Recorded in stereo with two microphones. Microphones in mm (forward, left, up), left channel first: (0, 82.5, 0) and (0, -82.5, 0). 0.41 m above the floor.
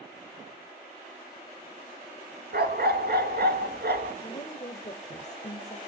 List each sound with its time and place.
2.5 s a dog barking: 75° right (ahead or behind), 1.7 m
4.2 s a woman speaking: 45° left (ahead or behind), 1.2 m